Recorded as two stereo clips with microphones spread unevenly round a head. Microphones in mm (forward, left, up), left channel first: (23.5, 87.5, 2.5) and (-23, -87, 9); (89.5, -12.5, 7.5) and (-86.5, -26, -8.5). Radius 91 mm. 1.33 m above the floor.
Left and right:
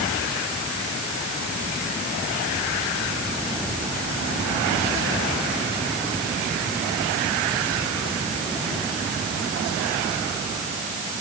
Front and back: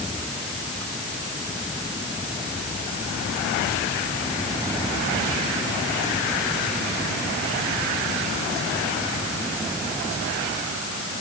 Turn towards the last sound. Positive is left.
No sound to turn to.